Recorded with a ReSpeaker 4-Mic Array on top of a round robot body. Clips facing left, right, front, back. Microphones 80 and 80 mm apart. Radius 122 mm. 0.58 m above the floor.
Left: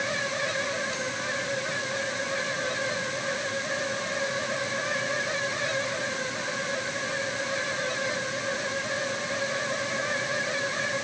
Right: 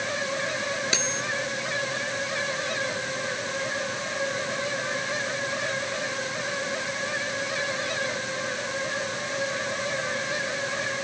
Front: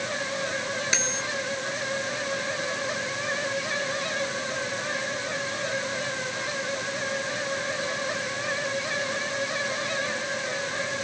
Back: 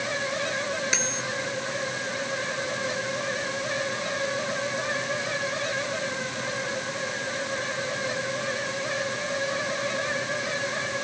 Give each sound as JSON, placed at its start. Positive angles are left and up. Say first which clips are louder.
{"t": 0.9, "sound": "cutlery clinking", "louder": "right 2 dB, even", "azimuth_deg": -90}